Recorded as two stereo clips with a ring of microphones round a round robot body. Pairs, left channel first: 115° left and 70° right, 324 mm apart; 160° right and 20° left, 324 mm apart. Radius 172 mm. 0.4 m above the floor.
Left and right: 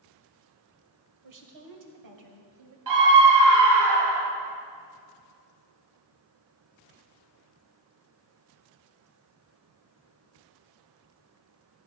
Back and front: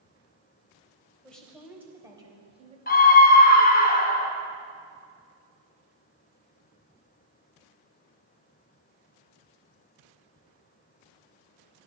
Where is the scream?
95° right, 2.5 m.